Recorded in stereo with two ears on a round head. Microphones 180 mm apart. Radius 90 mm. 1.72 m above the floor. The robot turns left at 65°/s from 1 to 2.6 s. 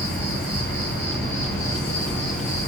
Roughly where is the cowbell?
No cowbell in this recording.